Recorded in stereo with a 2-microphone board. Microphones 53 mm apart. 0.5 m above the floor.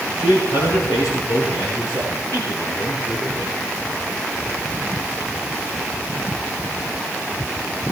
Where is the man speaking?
85° left, 7.5 m; by 3.5 s 80° left, 9.5 m.